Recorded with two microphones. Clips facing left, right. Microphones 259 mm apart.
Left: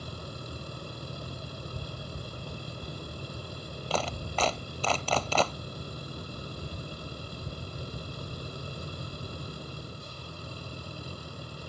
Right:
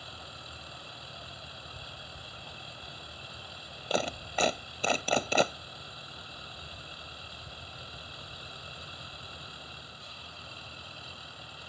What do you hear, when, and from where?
0.0 s a vehicle: 50° left (ahead or behind)
3.9 s a clap: 15° right (ahead or behind)